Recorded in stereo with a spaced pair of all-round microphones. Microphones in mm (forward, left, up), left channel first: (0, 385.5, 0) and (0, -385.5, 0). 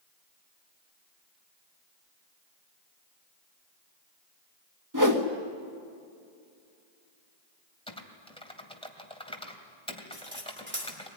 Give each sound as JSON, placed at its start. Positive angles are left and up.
{"t": 4.9, "sound": "a whoosh", "side_deg": -25, "distance_m": 1.7}
{"t": 7.9, "sound": "typing on a keyboard", "side_deg": 5, "distance_m": 2.0}
{"t": 10.1, "sound": "cutlery clinking", "side_deg": -15, "distance_m": 3.5}